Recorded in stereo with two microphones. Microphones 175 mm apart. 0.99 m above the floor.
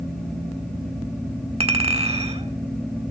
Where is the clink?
35° right (ahead or behind), 1.5 m.